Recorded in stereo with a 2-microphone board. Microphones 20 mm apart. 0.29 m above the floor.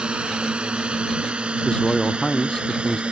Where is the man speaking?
35° left (ahead or behind).